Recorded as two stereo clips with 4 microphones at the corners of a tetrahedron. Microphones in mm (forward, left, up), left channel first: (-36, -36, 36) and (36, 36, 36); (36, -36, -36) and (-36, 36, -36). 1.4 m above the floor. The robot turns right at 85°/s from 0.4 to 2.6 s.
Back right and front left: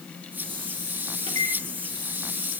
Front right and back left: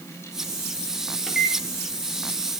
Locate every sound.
1.3 s a microwave: 45° left, 1.9 m; by 1.6 s 75° left, 1.9 m